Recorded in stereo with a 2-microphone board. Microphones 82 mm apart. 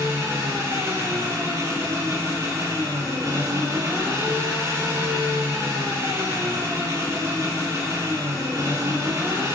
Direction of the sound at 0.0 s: 35° right (ahead or behind).